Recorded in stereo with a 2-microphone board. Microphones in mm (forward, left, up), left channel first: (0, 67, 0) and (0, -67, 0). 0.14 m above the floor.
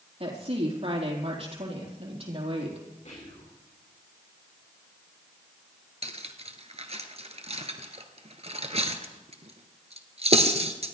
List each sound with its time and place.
0.2 s a woman speaking: 45° right (ahead or behind), 4 m
3.0 s whispering: 65° left (ahead or behind), 5.5 m
6.0 s cutlery clinking: 50° right (ahead or behind), 1.3 m